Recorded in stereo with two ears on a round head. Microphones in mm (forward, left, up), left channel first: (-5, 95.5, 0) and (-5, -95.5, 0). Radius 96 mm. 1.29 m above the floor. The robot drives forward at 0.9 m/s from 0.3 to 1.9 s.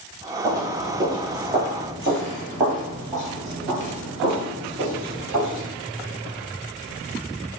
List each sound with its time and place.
0.4 s footsteps: 15° right (ahead or behind), 1.6 m